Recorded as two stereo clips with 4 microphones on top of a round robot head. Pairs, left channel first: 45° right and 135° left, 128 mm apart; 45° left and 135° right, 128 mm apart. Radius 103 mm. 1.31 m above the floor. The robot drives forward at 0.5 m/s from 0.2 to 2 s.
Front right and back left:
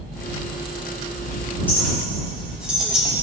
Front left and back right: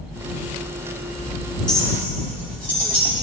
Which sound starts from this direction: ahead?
A clink, at 1.7 s.